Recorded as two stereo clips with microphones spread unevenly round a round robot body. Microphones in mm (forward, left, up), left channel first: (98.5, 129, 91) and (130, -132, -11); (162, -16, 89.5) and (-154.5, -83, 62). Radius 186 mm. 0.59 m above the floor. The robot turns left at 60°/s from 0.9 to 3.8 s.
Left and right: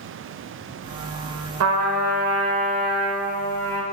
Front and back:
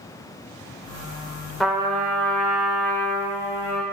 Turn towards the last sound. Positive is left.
turn(degrees=150)